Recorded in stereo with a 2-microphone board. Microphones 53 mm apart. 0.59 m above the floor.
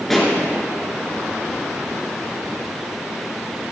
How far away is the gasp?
I don't hear a gasp.